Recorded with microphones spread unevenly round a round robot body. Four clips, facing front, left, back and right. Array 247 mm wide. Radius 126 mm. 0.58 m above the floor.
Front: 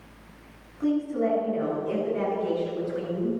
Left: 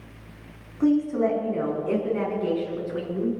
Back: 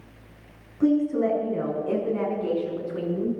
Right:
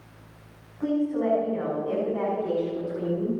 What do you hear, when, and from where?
0.8 s a woman speaking: 145° left, 5 m; by 3.3 s 110° left, 7 m